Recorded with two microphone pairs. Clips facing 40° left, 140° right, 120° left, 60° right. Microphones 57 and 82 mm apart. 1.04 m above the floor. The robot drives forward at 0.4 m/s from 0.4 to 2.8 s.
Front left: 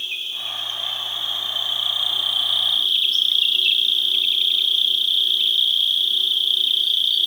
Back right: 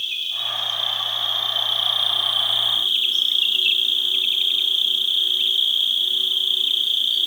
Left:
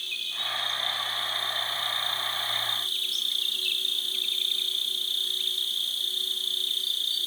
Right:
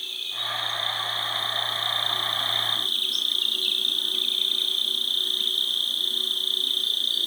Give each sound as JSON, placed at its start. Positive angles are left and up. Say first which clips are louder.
{"t": 0.0, "sound": "an insect", "louder": "back right 2 dB, right 1 dB", "azimuth_deg": -20, "distance_m": 1.3}